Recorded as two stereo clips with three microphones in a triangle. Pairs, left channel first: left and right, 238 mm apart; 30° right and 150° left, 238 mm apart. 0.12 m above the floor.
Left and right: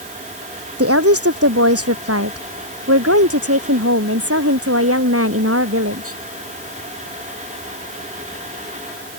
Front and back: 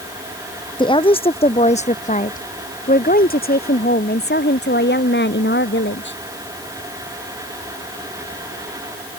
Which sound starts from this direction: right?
A woman speaking, at 0.8 s.